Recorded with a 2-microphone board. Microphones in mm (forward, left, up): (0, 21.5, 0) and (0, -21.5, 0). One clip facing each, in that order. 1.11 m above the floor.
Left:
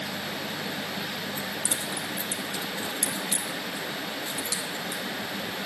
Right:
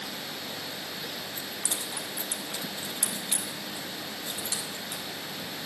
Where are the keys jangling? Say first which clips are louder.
Left 4 dB; 15° left (ahead or behind), 1.8 m; by 5.0 s 40° right (ahead or behind), 2.5 m.